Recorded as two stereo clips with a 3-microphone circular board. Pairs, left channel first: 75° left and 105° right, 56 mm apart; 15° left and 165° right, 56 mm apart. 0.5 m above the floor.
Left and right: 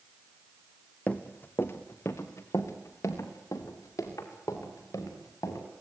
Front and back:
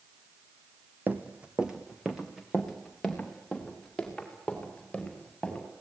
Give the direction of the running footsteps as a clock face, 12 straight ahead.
7 o'clock.